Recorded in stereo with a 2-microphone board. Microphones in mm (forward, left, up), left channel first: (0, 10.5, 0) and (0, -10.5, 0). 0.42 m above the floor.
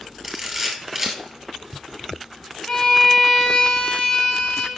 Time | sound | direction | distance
0.2 | a camera shutter | 15° right (ahead or behind) | 2.5 m
2.7 | a violin | 25° left (ahead or behind) | 1.7 m